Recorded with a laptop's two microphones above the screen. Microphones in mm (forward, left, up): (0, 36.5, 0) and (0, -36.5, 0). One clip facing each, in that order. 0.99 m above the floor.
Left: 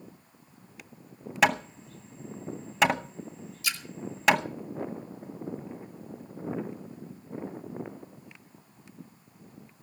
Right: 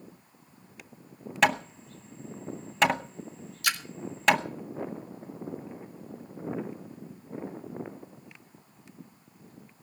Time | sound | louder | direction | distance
1.4 | hammering | even | 5° left (ahead or behind) | 0.8 m
3.6 | a splash | right 5 dB | 65° right (ahead or behind) | 1.0 m